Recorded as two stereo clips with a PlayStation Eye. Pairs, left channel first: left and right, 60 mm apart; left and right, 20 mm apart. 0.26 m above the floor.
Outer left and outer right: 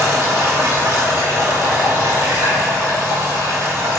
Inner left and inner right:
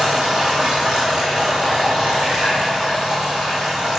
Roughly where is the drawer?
I don't hear a drawer.